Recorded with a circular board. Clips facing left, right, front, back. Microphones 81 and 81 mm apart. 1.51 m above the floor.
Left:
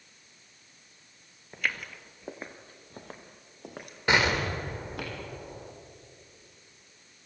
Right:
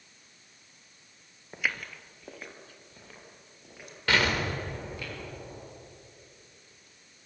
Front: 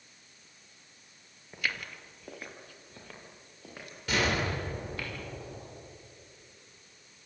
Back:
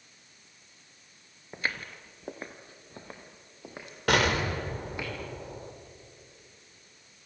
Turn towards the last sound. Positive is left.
turn(degrees=160)